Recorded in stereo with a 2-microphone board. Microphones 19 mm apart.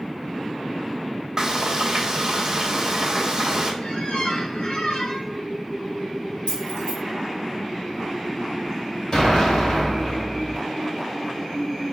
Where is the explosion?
40° left (ahead or behind), 2 m.